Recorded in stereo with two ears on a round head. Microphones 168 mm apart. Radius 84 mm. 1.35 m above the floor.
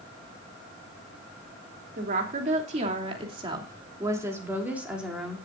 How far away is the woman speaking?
About 3 m.